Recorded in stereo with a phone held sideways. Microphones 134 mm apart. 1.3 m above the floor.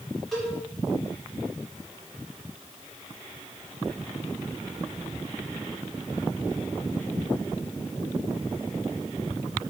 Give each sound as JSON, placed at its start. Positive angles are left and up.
{"t": 0.3, "sound": "a cowbell", "side_deg": 0, "distance_m": 4.5}